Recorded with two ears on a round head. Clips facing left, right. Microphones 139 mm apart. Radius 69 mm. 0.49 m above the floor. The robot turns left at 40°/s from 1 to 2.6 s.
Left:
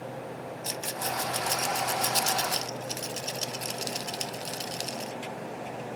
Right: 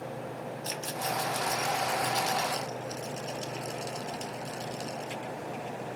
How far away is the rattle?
About 0.8 m.